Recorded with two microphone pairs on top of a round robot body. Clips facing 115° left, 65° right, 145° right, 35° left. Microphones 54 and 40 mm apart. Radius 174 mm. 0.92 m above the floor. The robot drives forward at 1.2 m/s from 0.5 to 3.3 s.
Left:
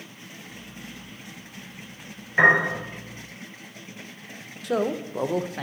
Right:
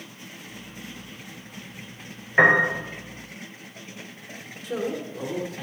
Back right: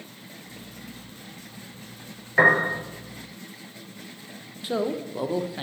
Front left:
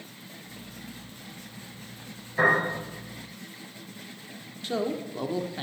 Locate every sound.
2.4 s a piano: 145° right, 3 m
4.6 s a man speaking: 135° left, 0.9 m